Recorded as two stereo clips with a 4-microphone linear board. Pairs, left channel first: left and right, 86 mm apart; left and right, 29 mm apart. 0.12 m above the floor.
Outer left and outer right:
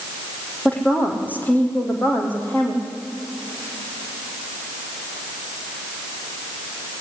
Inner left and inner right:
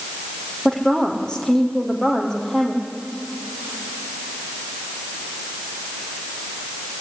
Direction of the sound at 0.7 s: 20° left (ahead or behind).